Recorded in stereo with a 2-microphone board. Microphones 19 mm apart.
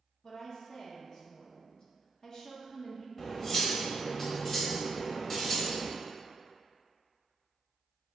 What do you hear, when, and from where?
0.2 s a woman speaking: 40° left (ahead or behind), 0.7 m
3.2 s cutlery clinking: 20° left (ahead or behind), 0.8 m